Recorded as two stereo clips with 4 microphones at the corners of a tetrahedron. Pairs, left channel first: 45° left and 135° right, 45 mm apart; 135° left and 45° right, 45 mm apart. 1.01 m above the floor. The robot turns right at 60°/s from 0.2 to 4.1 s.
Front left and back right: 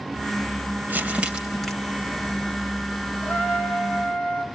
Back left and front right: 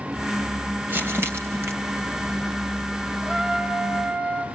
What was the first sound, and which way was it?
Crumpling, 90° right.